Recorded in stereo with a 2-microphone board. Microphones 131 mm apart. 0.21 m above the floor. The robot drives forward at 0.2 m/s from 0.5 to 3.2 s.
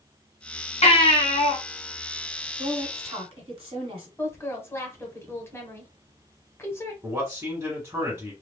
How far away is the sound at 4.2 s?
About 1.0 m.